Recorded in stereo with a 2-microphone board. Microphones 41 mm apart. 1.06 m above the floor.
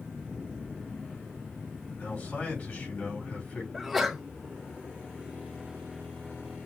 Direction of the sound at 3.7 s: Centre (ahead or behind).